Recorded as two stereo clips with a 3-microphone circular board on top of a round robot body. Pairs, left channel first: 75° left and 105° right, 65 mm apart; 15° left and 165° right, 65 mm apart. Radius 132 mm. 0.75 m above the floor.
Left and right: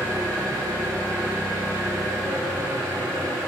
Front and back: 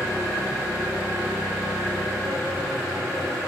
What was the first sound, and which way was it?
An engine running, 120° right.